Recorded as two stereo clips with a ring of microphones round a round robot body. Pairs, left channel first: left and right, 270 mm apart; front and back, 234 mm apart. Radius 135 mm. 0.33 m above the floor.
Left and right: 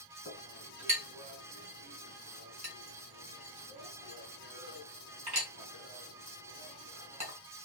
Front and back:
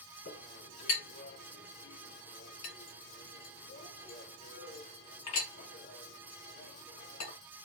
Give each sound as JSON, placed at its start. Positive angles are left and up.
{"t": 0.2, "sound": "a clink", "azimuth_deg": -25, "distance_m": 3.0}